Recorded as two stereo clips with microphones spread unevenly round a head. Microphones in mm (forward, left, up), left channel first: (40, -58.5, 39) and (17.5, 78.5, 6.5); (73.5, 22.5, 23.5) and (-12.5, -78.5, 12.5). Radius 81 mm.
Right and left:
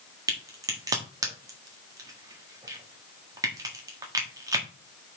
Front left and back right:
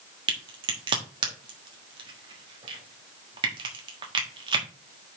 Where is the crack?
175° left, 1.4 m.